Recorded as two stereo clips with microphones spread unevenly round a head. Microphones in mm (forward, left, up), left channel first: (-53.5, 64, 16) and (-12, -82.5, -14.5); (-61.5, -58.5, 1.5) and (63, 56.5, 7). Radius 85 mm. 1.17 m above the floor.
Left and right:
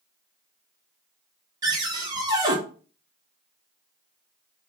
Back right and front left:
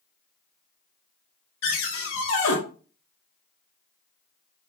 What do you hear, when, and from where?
1.6 s a cupboard door: 140° right, 1.3 m